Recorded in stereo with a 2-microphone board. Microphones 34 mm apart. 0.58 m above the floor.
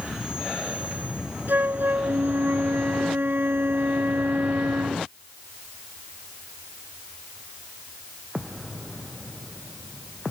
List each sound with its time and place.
1.5 s a flute: 65° right (ahead or behind)